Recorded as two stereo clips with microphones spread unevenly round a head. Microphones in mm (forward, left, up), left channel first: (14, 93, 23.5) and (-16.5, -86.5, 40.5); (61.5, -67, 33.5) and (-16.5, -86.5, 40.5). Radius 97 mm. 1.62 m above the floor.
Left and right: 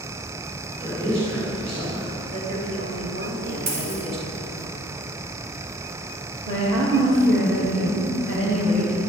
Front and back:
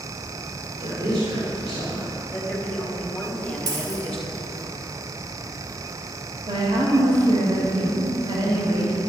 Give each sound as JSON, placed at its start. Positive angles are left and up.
{"t": 0.8, "sound": "a woman speaking", "azimuth_deg": -160, "distance_m": 4.5}
{"t": 2.3, "sound": "a woman speaking", "azimuth_deg": -65, "distance_m": 4.0}
{"t": 3.7, "sound": "a dropped coin", "azimuth_deg": -140, "distance_m": 3.5}
{"t": 6.5, "sound": "a woman speaking", "azimuth_deg": -150, "distance_m": 2.0}